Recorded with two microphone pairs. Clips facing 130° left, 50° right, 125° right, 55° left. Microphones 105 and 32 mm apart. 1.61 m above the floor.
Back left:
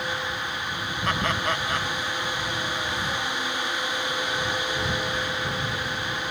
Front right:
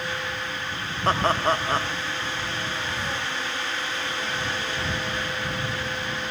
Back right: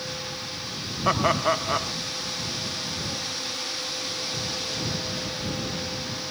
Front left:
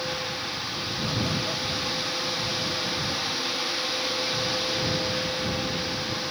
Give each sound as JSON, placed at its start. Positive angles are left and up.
{"t": 1.1, "sound": "laughter", "azimuth_deg": -110}